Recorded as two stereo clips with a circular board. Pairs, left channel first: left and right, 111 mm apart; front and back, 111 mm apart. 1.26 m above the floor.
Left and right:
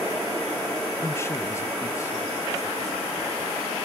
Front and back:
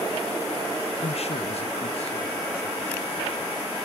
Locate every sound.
1.0 s a man speaking: 25° left, 0.8 m